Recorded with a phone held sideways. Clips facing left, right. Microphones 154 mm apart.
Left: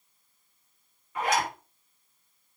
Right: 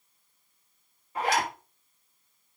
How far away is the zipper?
About 4 m.